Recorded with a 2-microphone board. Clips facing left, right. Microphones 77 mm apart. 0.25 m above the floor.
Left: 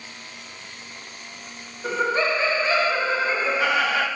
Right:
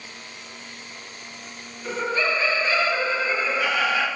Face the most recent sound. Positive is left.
turn(degrees=40)  # may be behind; listen again after turning